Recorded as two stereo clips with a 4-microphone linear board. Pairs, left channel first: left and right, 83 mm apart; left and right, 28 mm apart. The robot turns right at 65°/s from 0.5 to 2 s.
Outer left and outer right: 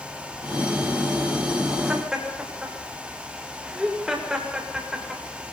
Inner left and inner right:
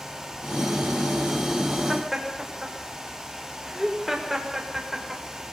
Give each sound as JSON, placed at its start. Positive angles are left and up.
{"t": 1.9, "sound": "laughter", "side_deg": -15, "distance_m": 7.0}